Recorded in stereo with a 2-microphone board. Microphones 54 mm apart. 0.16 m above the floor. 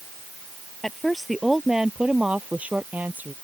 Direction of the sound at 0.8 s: 5° left (ahead or behind).